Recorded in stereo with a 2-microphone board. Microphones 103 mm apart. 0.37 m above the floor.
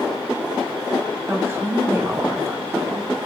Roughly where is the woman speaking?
Right.